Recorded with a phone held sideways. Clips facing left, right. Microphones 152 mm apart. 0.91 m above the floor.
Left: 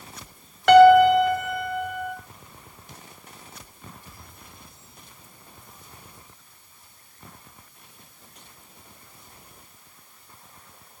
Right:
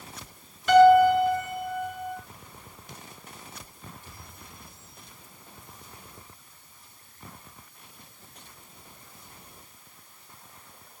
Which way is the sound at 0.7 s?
75° left (ahead or behind).